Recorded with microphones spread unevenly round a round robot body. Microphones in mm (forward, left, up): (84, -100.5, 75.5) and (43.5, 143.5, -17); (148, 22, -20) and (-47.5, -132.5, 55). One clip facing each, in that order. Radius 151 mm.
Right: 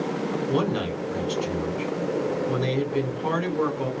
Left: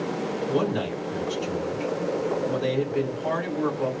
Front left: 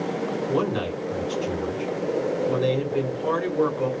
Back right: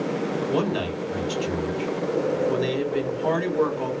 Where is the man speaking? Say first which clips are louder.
Left 1 dB, front left 1 dB; 90° right, 2.5 m.